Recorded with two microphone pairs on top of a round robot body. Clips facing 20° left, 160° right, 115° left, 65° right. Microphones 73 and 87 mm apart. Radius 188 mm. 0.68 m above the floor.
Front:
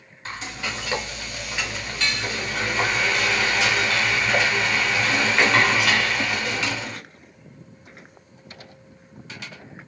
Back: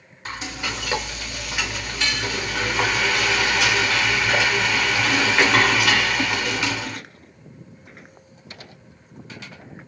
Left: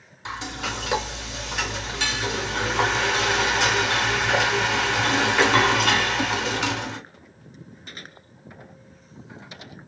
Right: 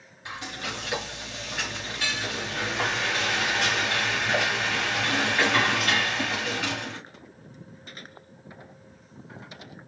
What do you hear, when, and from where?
0.2 s frying: 120° left, 2.5 m